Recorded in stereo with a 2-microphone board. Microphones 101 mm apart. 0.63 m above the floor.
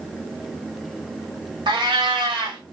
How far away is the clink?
I don't hear a clink.